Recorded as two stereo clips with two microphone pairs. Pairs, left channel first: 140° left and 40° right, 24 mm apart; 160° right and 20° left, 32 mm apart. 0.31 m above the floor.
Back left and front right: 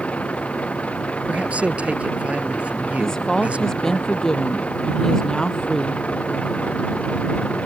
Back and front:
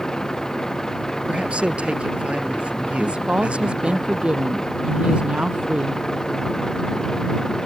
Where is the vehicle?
130° left.